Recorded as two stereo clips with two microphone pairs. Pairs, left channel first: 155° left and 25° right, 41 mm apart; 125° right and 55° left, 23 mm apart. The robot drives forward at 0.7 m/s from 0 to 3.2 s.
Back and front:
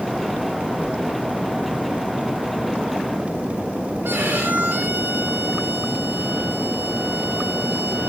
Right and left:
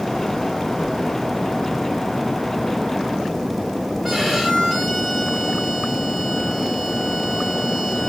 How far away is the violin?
About 4.5 m.